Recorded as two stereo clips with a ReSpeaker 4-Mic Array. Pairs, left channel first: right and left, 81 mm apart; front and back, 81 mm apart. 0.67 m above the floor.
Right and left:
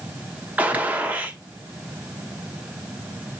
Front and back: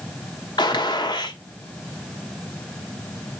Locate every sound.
0.6 s a gunshot: 20° left, 0.8 m